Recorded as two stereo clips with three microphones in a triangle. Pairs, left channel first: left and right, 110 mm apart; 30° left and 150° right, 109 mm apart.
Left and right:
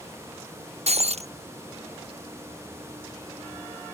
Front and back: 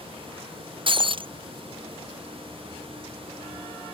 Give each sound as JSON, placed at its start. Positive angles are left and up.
{"t": 0.9, "sound": "breaking glass", "azimuth_deg": -110}